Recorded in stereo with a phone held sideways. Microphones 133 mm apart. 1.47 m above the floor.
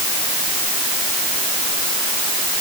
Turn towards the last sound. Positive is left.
No sound to turn to.